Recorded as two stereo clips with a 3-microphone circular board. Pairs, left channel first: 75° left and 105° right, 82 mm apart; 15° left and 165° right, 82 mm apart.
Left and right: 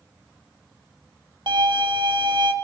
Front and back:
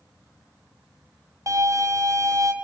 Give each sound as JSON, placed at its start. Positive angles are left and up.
{"t": 1.5, "sound": "a violin", "azimuth_deg": -120, "distance_m": 1.9}